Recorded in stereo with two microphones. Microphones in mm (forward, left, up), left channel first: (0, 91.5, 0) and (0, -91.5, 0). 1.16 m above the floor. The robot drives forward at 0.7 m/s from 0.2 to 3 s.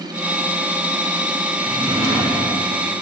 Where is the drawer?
30° right (ahead or behind), 1.2 m; by 2.6 s 20° right (ahead or behind), 1.8 m.